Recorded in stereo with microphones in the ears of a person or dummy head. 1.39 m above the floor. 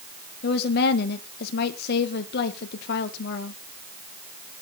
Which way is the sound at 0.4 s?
60° left (ahead or behind).